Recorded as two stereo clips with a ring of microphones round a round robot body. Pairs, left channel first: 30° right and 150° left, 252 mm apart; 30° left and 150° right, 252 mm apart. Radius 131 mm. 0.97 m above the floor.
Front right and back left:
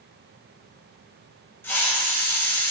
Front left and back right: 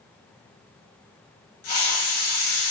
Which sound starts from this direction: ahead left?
A hiss, at 1.6 s.